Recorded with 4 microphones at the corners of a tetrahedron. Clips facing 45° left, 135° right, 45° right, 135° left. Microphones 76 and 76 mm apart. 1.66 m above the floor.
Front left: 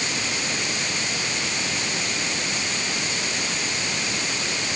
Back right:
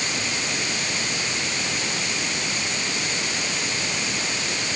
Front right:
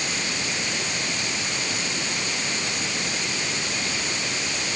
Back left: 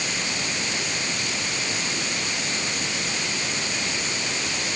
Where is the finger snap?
I don't hear a finger snap.